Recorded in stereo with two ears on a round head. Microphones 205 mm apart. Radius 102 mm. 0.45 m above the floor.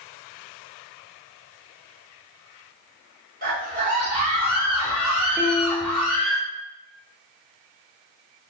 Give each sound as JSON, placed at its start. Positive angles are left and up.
{"t": 3.4, "sound": "a scream", "side_deg": -40, "distance_m": 1.8}
{"t": 5.4, "sound": "a piano", "side_deg": -10, "distance_m": 0.7}